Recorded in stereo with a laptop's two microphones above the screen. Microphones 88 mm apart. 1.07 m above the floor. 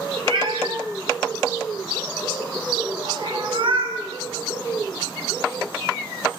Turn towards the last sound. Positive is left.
turn(degrees=-65)  # may be behind; listen again after turning